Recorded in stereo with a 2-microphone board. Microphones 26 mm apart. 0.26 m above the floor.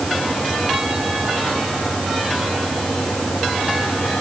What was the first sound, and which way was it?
Only background noise.